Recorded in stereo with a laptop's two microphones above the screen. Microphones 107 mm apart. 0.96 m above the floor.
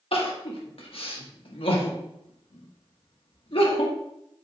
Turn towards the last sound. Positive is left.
turn(degrees=65)  # may be behind; listen again after turning